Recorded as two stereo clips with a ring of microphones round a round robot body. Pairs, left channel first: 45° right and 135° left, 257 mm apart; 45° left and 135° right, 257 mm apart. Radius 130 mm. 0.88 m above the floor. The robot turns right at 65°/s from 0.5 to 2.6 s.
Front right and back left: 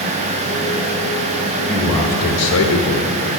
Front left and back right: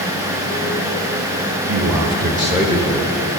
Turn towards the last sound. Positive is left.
turn(degrees=-65)